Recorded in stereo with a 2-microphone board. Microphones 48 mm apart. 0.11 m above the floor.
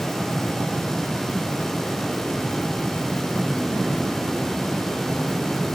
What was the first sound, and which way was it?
Only background noise.